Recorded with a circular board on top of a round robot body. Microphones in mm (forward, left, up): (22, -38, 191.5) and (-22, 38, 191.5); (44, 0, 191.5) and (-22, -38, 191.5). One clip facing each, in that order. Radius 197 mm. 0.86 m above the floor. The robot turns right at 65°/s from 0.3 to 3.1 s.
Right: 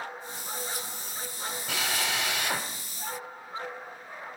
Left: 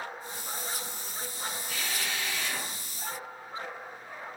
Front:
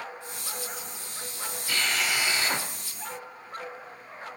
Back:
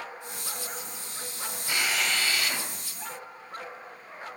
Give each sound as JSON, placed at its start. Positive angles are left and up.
{"t": 1.7, "sound": "a drill", "azimuth_deg": -75, "distance_m": 2.5}